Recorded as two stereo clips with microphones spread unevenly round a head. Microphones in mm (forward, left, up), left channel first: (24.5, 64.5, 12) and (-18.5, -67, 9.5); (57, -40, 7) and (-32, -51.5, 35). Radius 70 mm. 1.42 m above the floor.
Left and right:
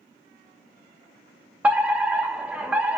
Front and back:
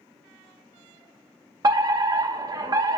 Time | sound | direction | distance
1.6 | a fire alarm | 170° right | 0.7 m